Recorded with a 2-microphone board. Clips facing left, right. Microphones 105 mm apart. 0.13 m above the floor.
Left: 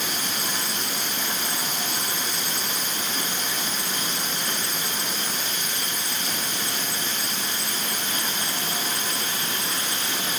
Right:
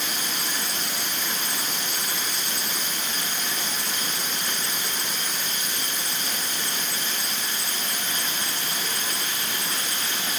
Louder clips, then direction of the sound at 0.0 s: Left 1 dB; 70° right (ahead or behind).